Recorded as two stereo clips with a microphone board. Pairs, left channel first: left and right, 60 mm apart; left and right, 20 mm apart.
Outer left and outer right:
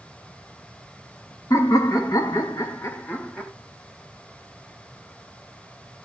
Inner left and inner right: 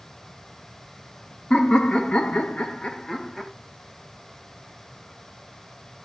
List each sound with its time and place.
1.5 s laughter: 75° left (ahead or behind), 0.9 m; by 3.5 s 25° left (ahead or behind), 0.7 m